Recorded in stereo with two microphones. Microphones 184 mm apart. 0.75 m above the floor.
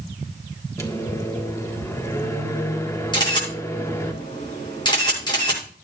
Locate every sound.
0.8 s a microwave: 15° left (ahead or behind), 1.6 m
3.1 s a camera shutter: 25° left (ahead or behind), 7 m